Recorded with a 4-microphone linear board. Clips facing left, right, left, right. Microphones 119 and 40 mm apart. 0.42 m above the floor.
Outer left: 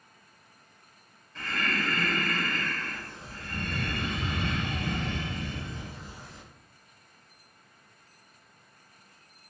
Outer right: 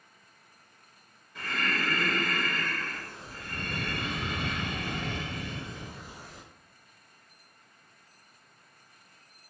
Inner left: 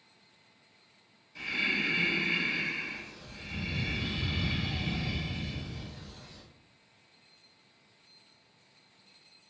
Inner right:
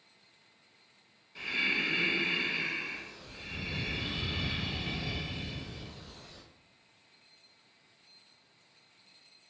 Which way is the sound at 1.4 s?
15° right (ahead or behind).